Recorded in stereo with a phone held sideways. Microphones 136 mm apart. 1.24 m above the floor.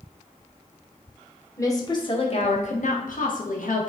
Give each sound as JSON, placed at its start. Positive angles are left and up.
{"t": 1.6, "sound": "a woman speaking", "side_deg": 25, "distance_m": 0.9}